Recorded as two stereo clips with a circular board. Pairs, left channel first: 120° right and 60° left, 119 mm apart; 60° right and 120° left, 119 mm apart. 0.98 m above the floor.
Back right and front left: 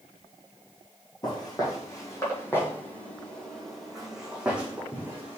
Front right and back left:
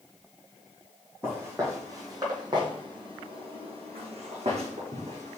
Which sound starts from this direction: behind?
Footsteps, at 1.2 s.